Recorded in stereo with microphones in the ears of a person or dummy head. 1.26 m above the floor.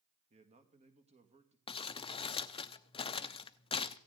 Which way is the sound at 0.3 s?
35° right (ahead or behind).